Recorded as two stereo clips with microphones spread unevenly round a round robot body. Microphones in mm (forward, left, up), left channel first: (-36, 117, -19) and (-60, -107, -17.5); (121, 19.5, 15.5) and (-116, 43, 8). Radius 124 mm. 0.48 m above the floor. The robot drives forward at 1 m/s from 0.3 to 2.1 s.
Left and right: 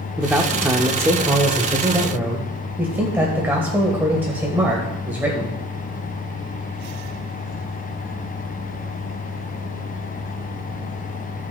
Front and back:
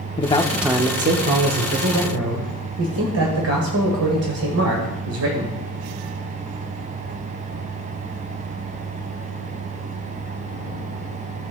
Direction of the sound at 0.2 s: 25° right.